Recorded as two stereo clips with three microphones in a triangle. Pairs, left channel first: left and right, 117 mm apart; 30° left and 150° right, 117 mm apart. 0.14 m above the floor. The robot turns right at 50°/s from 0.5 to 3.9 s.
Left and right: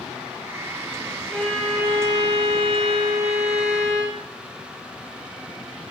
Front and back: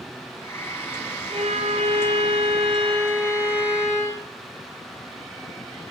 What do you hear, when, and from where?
1.3 s a violin: 165° left, 6.5 m; by 4.2 s 65° right, 6.5 m